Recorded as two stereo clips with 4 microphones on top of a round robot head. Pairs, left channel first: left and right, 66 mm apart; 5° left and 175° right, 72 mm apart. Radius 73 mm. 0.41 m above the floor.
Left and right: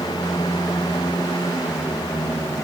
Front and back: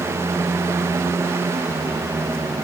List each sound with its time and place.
Only background noise.